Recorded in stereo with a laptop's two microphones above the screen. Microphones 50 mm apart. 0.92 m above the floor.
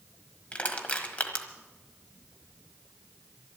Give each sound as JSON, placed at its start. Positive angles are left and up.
{"t": 0.5, "sound": "crushing", "side_deg": 30, "distance_m": 1.3}